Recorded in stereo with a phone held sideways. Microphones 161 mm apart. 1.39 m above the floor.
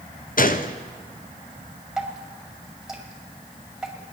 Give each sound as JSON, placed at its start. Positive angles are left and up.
{"t": 0.4, "sound": "a gunshot", "side_deg": 65, "distance_m": 0.6}
{"t": 2.0, "sound": "dripping", "side_deg": -5, "distance_m": 1.9}